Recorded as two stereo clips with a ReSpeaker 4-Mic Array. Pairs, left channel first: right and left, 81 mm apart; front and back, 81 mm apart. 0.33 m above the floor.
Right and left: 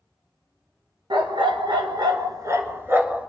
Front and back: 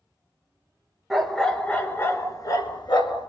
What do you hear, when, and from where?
1.1 s a dog barking: 90° left, 1.7 m; by 3.3 s 20° left, 1.8 m